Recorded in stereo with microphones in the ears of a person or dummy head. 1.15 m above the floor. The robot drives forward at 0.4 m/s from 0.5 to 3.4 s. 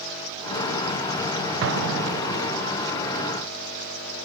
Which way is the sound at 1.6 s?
70° right (ahead or behind).